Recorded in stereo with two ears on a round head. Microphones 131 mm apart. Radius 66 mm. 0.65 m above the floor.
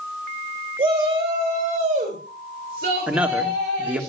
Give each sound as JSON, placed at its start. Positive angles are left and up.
{"t": 0.8, "sound": "a shout", "side_deg": -35, "distance_m": 3.5}
{"t": 3.1, "sound": "a man speaking", "side_deg": -10, "distance_m": 1.5}